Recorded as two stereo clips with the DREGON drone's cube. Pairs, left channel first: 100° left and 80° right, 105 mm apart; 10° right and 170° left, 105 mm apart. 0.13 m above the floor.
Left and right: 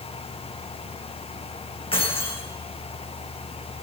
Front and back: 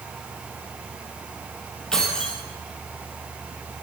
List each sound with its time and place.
1.9 s keys jangling: 75° left, 3 m